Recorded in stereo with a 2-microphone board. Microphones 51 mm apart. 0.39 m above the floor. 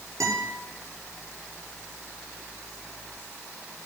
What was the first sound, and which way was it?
A guitar, 70° right (ahead or behind).